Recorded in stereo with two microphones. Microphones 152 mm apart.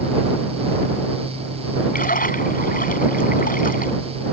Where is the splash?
65° left (ahead or behind).